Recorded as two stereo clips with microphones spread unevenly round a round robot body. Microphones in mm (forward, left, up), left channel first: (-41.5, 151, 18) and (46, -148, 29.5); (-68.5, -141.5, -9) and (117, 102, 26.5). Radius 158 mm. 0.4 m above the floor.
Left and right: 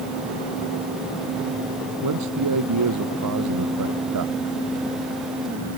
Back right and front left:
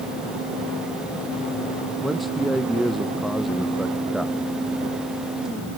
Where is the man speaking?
35° right.